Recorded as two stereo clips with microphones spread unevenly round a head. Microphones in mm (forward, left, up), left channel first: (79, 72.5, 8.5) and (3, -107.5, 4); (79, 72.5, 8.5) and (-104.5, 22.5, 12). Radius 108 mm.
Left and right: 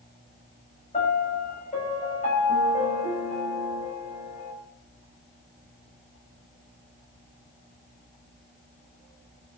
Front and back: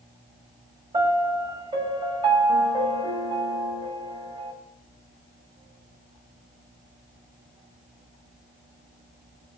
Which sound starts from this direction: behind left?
A piano, at 0.9 s.